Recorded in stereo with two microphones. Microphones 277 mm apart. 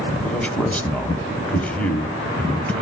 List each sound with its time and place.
0.2 s a man speaking: 5° left (ahead or behind), 1.5 m